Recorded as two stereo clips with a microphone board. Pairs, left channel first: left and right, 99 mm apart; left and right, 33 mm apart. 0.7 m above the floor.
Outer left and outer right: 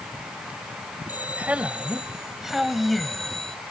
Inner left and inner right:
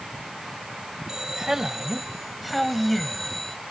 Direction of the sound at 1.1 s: 20° right (ahead or behind).